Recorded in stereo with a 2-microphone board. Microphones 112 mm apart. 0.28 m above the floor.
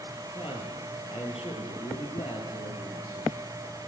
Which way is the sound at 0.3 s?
55° left (ahead or behind).